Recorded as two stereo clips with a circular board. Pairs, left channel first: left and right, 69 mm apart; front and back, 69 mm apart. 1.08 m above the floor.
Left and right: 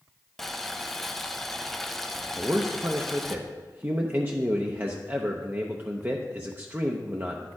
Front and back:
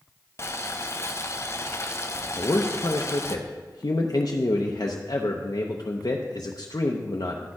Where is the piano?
No piano in this recording.